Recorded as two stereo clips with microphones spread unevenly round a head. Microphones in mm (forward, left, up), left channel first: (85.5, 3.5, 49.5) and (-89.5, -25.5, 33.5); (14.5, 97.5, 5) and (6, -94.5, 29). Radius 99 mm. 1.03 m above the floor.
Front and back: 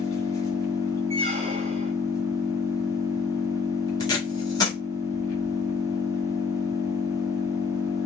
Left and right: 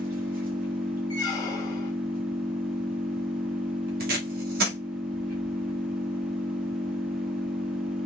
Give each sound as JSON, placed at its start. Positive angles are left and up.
{"t": 0.0, "sound": "an engine running", "azimuth_deg": -60, "distance_m": 1.6}
{"t": 1.1, "sound": "a squeak", "azimuth_deg": 155, "distance_m": 0.7}
{"t": 4.0, "sound": "tape being pulled", "azimuth_deg": -60, "distance_m": 1.3}